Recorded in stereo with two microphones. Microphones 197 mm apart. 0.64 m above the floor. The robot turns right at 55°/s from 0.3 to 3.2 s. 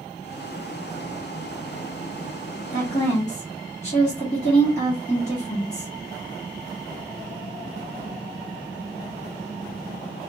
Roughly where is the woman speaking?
Left.